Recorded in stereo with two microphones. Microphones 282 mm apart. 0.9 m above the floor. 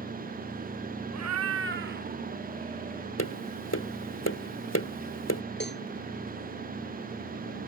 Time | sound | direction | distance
1.1 | a cat meowing | 65° right (ahead or behind) | ?
3.2 | tapping | 60° left (ahead or behind) | ?
5.6 | a cowbell | 40° left (ahead or behind) | ?